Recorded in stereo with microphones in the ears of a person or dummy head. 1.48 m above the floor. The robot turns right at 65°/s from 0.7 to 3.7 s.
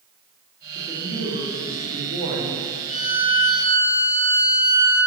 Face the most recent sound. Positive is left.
turn(degrees=175)